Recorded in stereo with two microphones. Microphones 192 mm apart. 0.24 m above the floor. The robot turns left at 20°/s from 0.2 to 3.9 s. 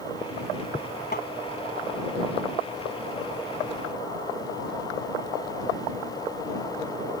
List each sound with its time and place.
1.1 s tapping: 55° left (ahead or behind)